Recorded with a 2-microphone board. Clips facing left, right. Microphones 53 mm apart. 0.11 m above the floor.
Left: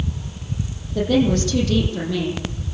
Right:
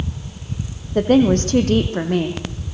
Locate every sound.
0.9 s a woman speaking: 40° right (ahead or behind), 3.5 m